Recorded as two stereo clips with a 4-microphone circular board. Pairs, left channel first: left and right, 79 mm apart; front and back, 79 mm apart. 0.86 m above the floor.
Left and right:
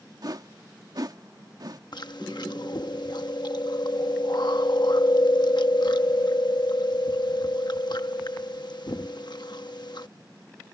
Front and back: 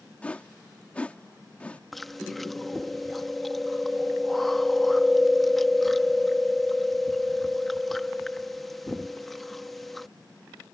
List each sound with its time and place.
0.2 s a whoosh: 70° right
1.9 s chewing: 90° left